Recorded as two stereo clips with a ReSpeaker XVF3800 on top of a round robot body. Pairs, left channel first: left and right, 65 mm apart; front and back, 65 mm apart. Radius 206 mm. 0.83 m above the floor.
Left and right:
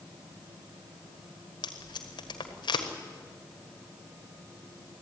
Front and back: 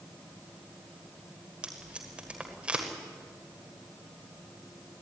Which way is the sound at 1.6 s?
105° left.